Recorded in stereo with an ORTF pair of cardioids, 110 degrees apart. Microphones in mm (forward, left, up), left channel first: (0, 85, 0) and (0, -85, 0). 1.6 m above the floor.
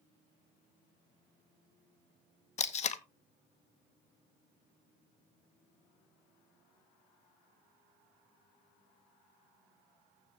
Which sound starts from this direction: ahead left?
Tape being pulled, at 2.6 s.